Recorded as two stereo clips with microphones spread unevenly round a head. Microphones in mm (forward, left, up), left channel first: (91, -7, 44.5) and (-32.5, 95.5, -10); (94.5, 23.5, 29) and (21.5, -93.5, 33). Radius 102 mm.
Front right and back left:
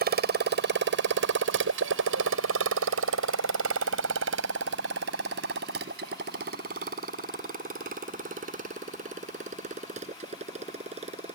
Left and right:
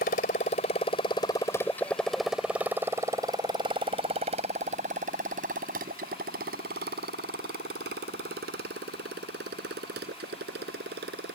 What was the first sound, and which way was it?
A motorcycle, 105° left.